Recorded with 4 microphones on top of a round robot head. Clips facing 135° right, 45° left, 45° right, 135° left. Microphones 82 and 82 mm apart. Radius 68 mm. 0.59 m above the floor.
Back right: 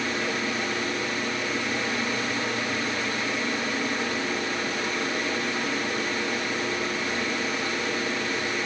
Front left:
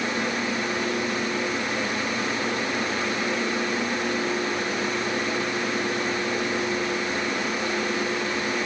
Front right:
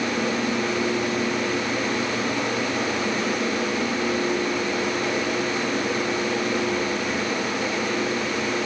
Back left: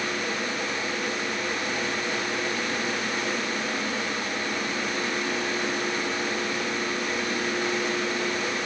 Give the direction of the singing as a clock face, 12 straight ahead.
No singing in this recording.